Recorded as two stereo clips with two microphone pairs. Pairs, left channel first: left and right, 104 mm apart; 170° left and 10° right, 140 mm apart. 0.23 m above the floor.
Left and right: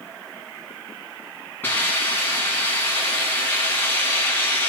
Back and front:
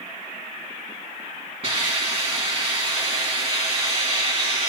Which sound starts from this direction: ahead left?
A hiss, at 1.6 s.